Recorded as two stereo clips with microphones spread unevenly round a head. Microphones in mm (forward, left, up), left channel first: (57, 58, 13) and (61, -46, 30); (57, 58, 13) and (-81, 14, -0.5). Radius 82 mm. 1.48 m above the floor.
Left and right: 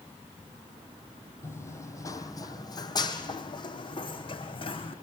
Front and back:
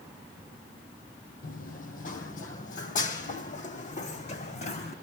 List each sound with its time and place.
1.4 s running footsteps: 25° left, 3 m; by 4.9 s 55° left, 5.5 m